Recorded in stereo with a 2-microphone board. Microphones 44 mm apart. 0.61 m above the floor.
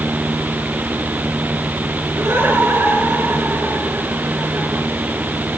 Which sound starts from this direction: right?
Laughter, at 2.1 s.